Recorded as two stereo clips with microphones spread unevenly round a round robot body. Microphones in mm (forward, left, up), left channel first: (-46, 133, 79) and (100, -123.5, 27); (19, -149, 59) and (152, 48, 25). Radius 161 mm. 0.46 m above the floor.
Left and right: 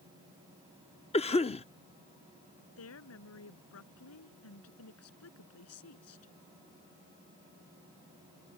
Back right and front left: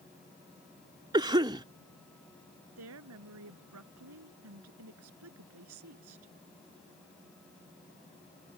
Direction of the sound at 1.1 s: 55° left.